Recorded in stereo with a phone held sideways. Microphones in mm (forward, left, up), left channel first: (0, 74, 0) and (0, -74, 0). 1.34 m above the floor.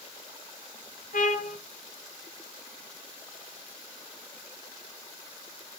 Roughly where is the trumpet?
Left.